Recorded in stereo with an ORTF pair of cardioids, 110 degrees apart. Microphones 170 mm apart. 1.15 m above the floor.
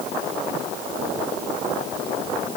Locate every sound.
Only background noise.